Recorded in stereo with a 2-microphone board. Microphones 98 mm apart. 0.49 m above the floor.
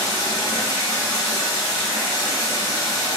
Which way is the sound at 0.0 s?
35° left (ahead or behind).